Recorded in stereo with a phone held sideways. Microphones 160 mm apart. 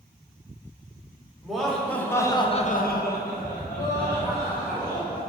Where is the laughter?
Centre (ahead or behind), 1.5 m; by 5.2 s 30° left (ahead or behind), 2.5 m.